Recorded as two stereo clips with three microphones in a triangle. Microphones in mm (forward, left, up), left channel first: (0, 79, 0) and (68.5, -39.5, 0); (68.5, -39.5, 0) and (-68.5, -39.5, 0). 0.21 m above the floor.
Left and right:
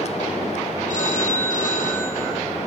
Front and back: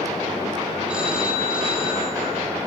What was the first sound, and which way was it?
A phone ringing, 100° left.